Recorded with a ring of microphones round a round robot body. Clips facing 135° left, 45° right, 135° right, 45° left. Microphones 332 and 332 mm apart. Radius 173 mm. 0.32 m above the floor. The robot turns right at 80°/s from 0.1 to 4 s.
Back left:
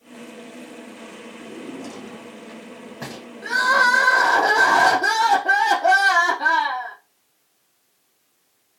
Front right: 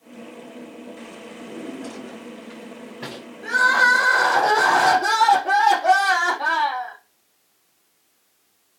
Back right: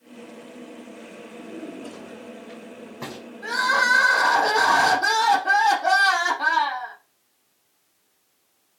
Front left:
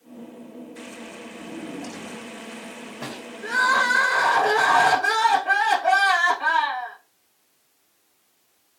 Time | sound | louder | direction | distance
1.4 | a drawer | front right 1 dB, front left 1 dB | 15° left | 4 m
3.4 | crying | back left 1 dB, front left 1 dB | 165° left | 4.5 m